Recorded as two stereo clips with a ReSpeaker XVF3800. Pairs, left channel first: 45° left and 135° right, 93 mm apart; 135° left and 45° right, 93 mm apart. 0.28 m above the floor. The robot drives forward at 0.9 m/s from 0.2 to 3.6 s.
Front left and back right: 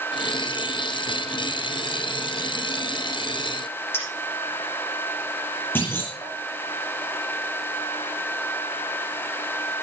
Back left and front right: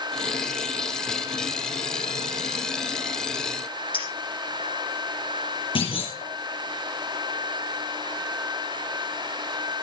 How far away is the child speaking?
I don't hear a child speaking.